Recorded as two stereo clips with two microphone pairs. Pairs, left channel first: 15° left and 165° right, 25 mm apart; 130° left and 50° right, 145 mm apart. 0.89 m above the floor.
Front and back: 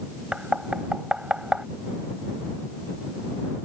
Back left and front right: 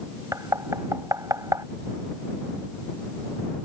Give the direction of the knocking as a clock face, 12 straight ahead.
4 o'clock.